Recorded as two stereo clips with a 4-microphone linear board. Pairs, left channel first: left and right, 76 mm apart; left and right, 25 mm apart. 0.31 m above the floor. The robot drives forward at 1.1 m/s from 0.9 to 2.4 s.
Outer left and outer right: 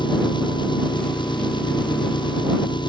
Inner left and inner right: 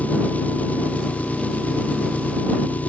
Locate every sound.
0.0 s an engine running: 85° left